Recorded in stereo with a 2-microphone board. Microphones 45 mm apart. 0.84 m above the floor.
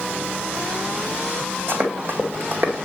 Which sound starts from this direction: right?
Running footsteps, at 1.7 s.